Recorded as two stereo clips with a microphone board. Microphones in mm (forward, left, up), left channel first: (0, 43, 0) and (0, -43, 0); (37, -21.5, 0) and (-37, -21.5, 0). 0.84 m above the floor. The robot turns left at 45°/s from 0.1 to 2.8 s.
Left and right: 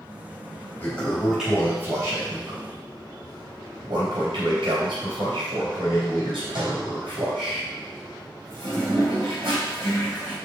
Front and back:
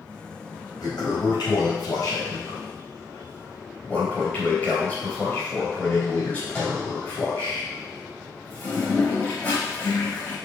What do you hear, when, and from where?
0.8 s a toilet flushing: 20° left, 4 m; by 10.4 s 65° right, 4 m